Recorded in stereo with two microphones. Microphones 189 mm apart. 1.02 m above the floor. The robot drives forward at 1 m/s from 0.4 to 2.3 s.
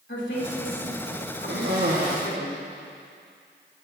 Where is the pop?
No pop in this recording.